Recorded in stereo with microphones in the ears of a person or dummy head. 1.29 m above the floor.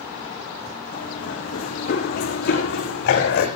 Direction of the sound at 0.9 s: 45° left (ahead or behind).